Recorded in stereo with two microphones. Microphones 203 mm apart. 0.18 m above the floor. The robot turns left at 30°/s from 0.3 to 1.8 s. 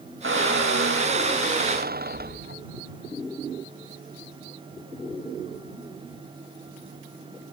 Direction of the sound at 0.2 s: 80° right.